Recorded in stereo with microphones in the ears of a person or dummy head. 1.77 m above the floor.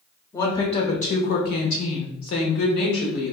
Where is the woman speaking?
25° left (ahead or behind), 0.9 m; by 3.3 s 60° left (ahead or behind), 1.2 m.